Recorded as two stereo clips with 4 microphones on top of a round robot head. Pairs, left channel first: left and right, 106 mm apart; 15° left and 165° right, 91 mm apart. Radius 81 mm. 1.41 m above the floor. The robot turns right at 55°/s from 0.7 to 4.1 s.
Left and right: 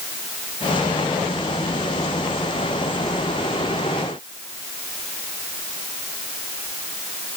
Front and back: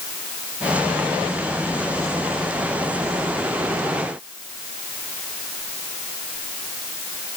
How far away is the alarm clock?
I don't hear an alarm clock.